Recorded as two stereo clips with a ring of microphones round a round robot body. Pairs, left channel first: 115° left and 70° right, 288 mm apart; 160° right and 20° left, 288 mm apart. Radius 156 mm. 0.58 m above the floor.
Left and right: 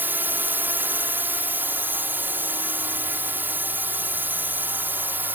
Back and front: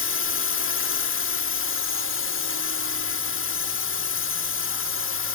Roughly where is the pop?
No pop in this recording.